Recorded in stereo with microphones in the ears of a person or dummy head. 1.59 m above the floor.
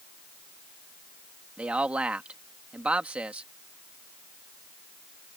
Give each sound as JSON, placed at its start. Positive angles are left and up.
{"t": 1.6, "sound": "a man speaking", "side_deg": -10}